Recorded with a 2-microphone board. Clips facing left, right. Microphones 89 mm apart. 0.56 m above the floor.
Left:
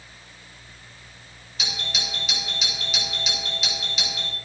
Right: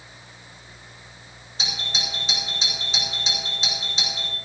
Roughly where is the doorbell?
Right.